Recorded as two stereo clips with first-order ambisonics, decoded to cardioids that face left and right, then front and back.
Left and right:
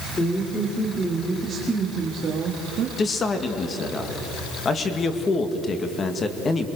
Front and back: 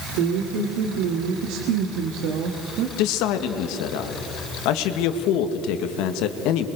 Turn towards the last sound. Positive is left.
turn(degrees=20)